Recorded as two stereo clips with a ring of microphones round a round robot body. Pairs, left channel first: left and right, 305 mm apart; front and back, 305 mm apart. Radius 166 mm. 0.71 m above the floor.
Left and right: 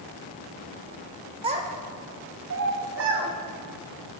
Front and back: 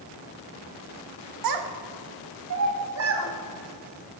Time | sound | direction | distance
1.4 | a child speaking | 165° right | 1.1 m